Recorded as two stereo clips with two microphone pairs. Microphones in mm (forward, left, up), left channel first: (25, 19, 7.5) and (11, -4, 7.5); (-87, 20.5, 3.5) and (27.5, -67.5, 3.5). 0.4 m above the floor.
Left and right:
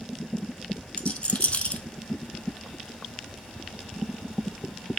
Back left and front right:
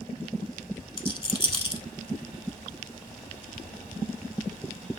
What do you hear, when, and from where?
1.0 s a rattle: 95° left, 0.6 m